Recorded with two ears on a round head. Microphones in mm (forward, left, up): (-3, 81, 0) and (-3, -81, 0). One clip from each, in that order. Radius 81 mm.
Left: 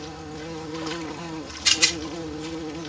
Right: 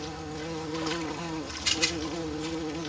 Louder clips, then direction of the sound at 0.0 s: Even; 5° right (ahead or behind).